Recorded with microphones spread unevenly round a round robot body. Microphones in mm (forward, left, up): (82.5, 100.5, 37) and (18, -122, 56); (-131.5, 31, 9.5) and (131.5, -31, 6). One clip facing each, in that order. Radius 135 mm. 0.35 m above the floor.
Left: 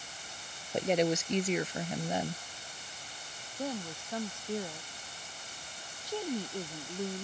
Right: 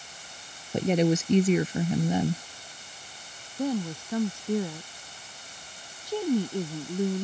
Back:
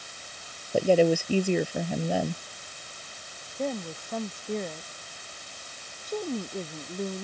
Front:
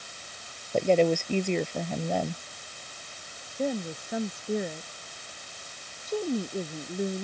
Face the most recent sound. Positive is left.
turn(degrees=-95)